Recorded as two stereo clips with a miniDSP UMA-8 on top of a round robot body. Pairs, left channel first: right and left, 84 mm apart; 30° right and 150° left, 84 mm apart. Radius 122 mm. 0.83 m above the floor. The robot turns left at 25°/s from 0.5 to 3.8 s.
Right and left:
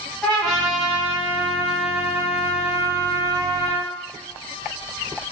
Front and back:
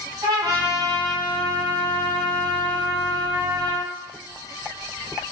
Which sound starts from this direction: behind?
A trumpet, at 0.2 s.